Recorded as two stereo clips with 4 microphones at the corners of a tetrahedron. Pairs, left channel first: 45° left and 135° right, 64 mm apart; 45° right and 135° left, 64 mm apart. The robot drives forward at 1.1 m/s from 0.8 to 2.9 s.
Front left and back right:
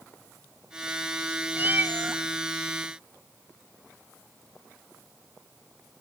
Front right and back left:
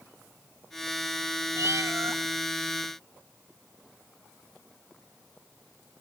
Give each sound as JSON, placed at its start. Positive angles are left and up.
{"t": 1.6, "sound": "a cat meowing", "azimuth_deg": 170, "distance_m": 0.8}